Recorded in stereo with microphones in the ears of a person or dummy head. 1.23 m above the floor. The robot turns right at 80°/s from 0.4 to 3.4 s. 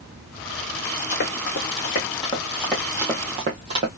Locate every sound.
1.1 s running footsteps: 50° left (ahead or behind), 2.5 m; by 3.9 s 25° right (ahead or behind), 1.6 m